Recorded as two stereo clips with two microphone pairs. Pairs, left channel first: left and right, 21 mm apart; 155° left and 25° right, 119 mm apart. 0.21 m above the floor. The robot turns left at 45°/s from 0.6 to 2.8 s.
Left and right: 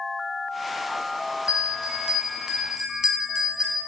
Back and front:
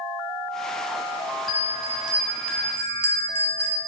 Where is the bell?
80° right, 1.1 m; by 3.8 s 140° right, 1.1 m.